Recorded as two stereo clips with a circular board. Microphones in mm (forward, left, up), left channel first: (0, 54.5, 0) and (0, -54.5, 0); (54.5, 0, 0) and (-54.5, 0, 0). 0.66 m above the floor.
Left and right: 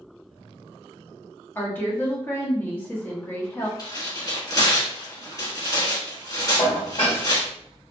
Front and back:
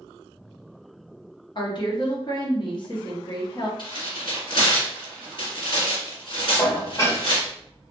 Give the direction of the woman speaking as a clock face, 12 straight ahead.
11 o'clock.